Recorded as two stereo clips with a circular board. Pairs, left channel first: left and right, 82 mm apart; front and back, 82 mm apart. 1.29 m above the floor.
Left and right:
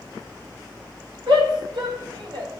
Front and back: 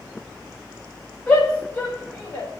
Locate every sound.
1.3 s a shout: 75° right, 8 m